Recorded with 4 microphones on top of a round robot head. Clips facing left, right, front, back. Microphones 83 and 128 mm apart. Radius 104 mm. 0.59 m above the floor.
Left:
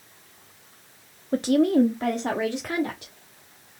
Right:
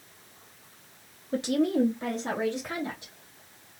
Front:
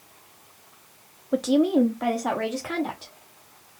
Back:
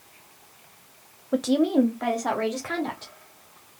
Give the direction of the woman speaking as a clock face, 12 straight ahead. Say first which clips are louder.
Left 6 dB, front 1 dB; 9 o'clock.